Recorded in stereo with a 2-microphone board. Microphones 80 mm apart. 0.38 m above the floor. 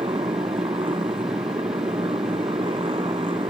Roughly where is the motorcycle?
Right.